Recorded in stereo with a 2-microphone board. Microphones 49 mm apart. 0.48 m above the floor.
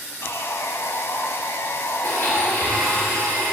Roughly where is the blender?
Left.